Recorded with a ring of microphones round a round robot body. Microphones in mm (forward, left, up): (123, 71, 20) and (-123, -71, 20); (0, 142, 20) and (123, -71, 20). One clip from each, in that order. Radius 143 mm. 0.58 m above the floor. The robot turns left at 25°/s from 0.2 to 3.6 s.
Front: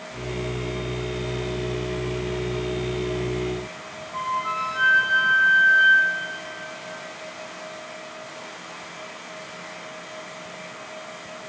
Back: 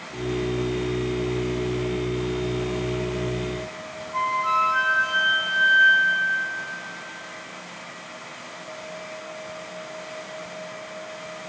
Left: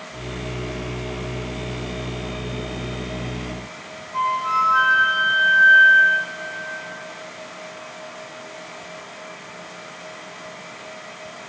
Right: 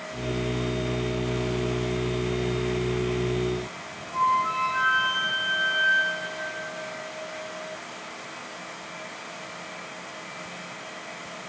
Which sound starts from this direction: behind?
A flute, at 4.1 s.